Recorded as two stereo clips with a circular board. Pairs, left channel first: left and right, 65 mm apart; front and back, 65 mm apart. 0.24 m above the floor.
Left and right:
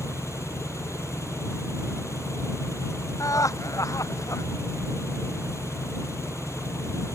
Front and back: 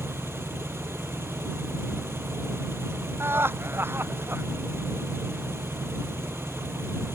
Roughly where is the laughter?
Behind left.